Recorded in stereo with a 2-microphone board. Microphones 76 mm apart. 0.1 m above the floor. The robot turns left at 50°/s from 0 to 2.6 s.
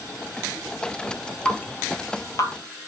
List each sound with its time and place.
1.4 s dripping: 15° left (ahead or behind), 0.8 m; by 2.5 s 55° left (ahead or behind), 0.8 m